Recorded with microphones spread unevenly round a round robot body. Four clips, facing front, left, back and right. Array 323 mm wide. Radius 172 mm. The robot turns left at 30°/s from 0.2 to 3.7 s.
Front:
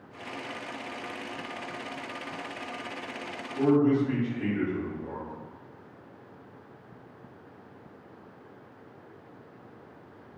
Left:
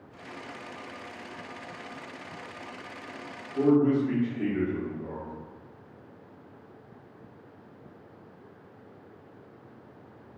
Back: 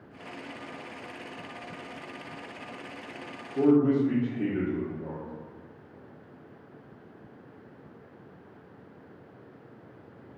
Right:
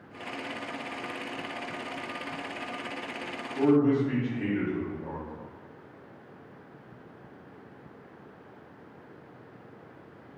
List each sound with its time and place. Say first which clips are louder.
3.5 s a man speaking: even, back 1 dB; 160° left, 1.0 m; by 5.3 s 155° left, 1.0 m